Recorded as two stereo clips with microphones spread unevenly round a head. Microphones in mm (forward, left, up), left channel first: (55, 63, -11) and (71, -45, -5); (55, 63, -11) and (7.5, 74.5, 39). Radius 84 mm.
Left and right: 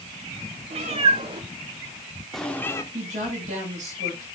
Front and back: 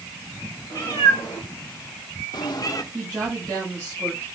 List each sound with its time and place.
0.7 s a cat meowing: 105° right, 2.5 m; by 2.8 s 45° left, 1.4 m
2.9 s a woman speaking: 90° right, 7.5 m